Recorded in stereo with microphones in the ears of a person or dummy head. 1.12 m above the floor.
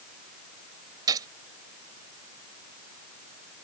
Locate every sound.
1.1 s a gunshot: 25° right (ahead or behind)